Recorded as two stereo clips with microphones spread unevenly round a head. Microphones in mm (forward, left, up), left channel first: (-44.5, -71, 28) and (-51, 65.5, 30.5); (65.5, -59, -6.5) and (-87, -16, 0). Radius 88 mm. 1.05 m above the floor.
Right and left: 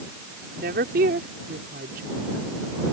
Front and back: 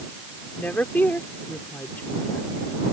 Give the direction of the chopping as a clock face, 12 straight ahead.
No chopping in this recording.